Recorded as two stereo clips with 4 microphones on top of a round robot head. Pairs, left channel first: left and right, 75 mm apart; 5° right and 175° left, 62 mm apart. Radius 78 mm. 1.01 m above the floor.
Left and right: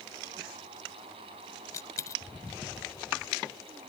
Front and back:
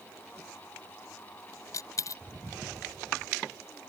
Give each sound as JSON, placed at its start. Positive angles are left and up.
{"t": 1.7, "sound": "a dropped coin", "azimuth_deg": 30}